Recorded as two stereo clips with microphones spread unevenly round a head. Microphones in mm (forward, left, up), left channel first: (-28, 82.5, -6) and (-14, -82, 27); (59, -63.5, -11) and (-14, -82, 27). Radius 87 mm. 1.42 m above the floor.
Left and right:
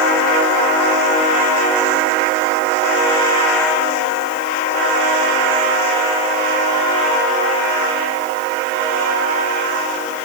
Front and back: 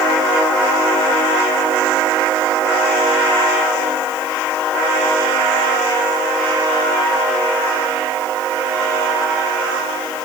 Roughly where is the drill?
I don't hear a drill.